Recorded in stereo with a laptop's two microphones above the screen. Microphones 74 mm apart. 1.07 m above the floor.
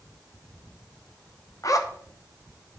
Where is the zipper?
50° left (ahead or behind), 1.0 m.